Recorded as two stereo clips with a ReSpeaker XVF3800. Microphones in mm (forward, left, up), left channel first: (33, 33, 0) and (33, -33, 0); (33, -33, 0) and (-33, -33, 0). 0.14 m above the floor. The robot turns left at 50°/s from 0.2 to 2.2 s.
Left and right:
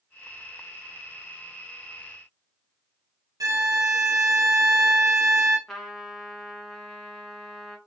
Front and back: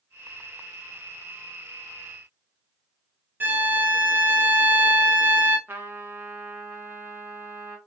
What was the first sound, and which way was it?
A violin, 115° right.